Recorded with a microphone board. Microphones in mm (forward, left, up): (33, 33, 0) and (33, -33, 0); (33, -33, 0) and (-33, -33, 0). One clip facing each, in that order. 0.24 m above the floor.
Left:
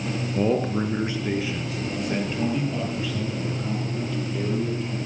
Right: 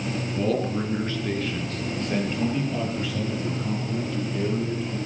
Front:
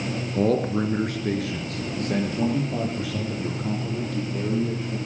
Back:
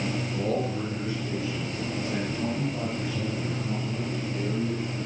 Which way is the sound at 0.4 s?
30° left.